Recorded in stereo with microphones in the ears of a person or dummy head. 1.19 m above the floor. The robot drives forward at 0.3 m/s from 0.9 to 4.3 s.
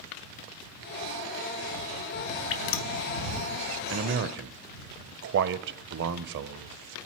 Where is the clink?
No clink in this recording.